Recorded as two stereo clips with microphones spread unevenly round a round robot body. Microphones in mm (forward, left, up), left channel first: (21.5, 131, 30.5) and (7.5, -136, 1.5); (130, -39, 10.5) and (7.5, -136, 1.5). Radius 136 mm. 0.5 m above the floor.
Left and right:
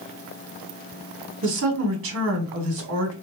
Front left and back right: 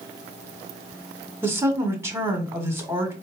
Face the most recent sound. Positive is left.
turn(degrees=-70)